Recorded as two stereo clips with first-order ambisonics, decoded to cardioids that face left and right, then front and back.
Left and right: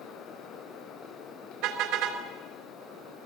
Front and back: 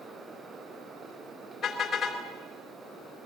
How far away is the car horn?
About 3.5 m.